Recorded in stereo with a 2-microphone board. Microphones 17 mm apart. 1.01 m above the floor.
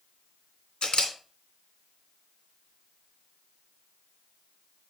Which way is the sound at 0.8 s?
75° left (ahead or behind).